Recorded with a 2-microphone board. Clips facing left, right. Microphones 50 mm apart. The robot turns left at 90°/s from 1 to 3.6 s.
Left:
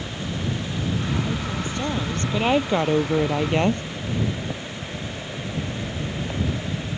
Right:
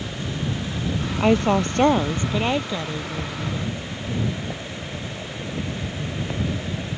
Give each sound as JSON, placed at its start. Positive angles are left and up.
{"t": 1.2, "sound": "a woman speaking", "azimuth_deg": -75}